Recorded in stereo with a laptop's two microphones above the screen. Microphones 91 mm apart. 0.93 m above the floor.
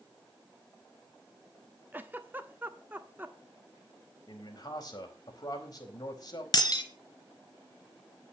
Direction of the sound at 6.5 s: 45° left (ahead or behind).